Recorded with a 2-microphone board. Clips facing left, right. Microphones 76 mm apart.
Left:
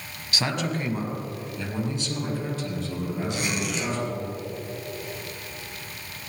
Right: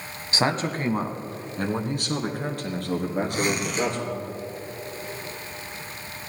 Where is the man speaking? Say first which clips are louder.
Right 3 dB; 35° right (ahead or behind), 1.2 m; by 4.2 s 70° right (ahead or behind), 3.5 m.